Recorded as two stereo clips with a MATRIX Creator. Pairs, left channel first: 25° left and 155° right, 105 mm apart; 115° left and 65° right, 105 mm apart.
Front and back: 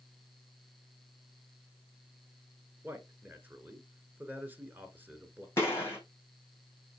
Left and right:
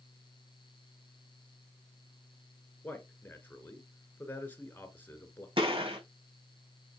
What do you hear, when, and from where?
2.8 s a man speaking: 160° left, 1.5 m
5.6 s a gunshot: 45° right, 4.5 m